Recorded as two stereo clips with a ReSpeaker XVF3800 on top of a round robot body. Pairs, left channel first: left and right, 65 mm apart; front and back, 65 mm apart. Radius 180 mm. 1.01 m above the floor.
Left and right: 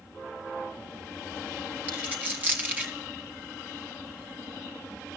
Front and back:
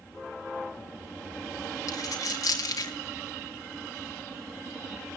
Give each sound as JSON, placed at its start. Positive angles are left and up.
{"t": 1.9, "sound": "a dropped coin", "azimuth_deg": -25, "distance_m": 0.6}